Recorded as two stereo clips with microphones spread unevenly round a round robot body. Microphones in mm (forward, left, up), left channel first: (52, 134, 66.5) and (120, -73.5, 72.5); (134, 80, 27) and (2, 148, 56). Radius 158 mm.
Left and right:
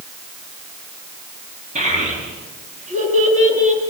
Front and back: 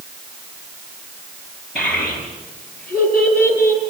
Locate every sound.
1.8 s a child speaking: 140° right, 9.5 m; by 3.8 s 135° right, 8 m